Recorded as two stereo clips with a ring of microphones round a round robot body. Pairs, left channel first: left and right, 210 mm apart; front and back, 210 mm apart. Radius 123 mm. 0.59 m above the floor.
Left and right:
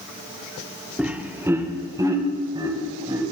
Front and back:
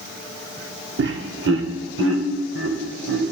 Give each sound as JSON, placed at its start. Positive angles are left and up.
{"t": 1.0, "sound": "laughter", "azimuth_deg": -175, "distance_m": 1.6}